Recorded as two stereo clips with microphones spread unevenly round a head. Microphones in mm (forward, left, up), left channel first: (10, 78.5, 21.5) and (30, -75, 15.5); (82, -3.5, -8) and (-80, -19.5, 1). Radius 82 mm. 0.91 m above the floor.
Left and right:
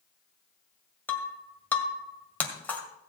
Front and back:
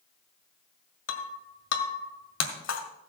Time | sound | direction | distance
1.1 | breaking glass | 20° left | 1.9 m